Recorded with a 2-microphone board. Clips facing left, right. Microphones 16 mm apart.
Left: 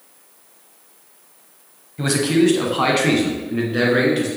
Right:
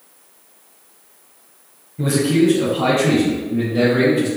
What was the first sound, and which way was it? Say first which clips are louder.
A man speaking: right 1 dB; 40° left (ahead or behind).